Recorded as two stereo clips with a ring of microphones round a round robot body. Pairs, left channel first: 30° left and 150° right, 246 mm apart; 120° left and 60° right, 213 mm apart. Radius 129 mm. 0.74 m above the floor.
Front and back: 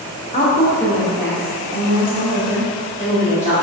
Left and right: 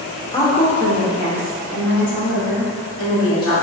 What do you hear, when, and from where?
0.3 s a woman speaking: 60° left, 0.6 m; by 3.5 s 150° left, 1.9 m